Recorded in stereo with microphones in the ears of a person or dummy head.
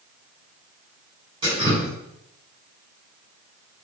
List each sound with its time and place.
1.4 s dripping: 30° right (ahead or behind), 4.5 m